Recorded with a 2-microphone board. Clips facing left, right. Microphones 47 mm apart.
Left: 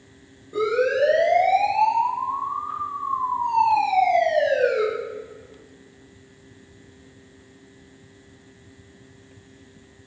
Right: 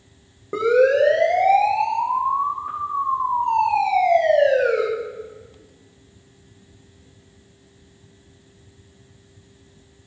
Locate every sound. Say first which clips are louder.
0.5 s a siren: right 5 dB; 60° right (ahead or behind), 9 m; by 4.8 s 50° right (ahead or behind), 15 m